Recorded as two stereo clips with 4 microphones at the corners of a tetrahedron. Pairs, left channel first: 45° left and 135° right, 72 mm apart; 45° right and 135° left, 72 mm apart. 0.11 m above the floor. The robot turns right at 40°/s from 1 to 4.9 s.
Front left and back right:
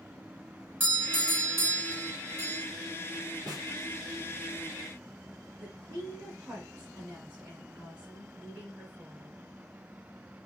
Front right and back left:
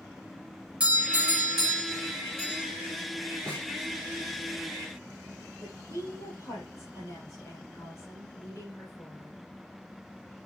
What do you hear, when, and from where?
0.8 s a doorbell: 170° right, 2 m; by 2.6 s 105° right, 2 m
3.5 s a snare drum: 125° right, 2 m; by 3.7 s 115° right, 2 m
5.6 s a woman speaking: 70° right, 3 m